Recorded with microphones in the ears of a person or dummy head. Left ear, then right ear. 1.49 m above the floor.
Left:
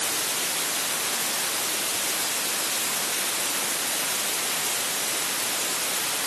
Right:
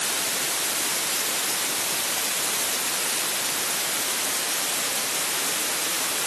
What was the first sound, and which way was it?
Only background noise.